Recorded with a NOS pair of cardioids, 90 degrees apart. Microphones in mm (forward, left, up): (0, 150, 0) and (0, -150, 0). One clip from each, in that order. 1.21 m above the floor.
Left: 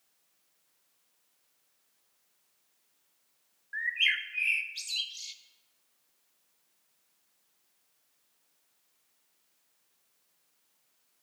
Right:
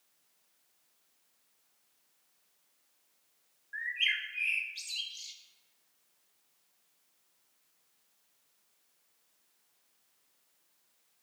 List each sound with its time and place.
3.7 s a bird: 20° left, 0.7 m